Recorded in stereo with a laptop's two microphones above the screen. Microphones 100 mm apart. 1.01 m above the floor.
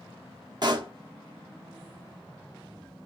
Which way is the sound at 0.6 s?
45° right (ahead or behind).